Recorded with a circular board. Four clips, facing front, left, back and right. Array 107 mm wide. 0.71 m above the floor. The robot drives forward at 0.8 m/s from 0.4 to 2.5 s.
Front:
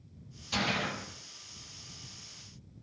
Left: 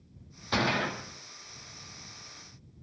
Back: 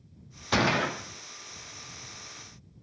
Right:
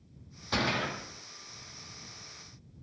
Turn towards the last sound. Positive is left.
turn(degrees=180)